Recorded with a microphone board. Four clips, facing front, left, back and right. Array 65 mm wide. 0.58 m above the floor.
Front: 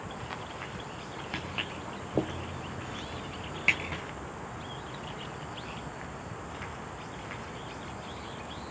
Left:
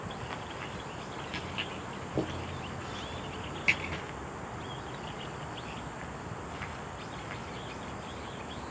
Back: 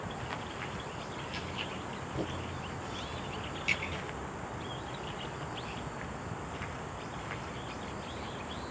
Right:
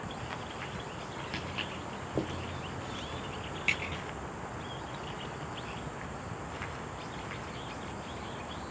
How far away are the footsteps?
About 3.5 m.